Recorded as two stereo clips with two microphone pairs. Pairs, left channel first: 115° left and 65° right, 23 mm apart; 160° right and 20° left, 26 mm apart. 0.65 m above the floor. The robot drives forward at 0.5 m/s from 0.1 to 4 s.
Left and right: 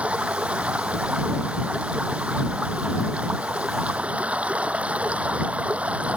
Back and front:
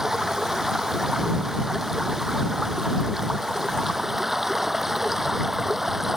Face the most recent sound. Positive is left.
turn(degrees=-55)